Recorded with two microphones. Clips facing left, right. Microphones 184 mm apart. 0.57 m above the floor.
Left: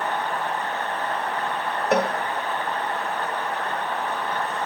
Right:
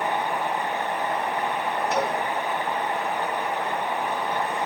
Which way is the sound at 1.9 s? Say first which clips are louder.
Left 6 dB; 60° left (ahead or behind).